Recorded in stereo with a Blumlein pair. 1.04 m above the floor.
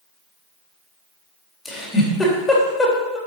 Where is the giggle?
15° left, 3 m.